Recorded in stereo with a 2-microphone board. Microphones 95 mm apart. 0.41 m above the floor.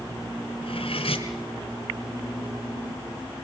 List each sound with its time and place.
0.6 s cutlery clinking: 80° left, 2.5 m